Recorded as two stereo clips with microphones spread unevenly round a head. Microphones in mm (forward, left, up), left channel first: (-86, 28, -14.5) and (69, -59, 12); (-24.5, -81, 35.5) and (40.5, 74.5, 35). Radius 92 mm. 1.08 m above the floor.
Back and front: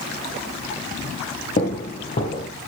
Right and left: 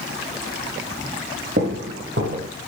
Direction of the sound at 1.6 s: 105° left.